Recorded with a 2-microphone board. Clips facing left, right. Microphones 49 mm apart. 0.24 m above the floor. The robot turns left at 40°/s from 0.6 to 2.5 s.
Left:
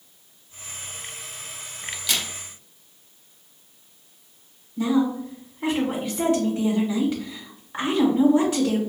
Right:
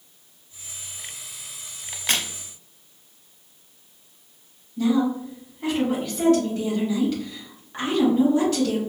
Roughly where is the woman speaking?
Centre.